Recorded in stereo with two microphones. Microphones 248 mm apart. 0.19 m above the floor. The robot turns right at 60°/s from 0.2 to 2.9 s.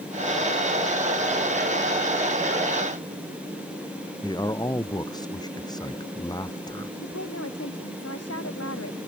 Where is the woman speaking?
75° left (ahead or behind).